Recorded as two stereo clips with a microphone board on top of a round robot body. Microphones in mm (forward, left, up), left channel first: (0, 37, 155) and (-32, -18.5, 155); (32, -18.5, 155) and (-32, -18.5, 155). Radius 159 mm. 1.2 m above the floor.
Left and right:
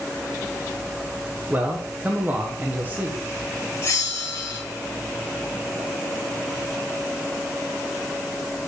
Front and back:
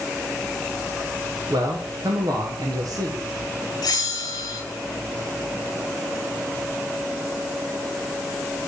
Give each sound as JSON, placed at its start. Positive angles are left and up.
{"t": 1.5, "sound": "a man speaking", "azimuth_deg": 180, "distance_m": 1.4}
{"t": 3.8, "sound": "a bell", "azimuth_deg": 15, "distance_m": 1.5}